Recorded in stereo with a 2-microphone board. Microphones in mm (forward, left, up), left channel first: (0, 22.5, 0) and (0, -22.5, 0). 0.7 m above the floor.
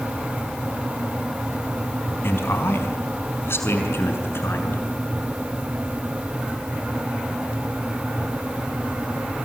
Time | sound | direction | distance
2.2 | a man speaking | 60° left (ahead or behind) | 4.5 m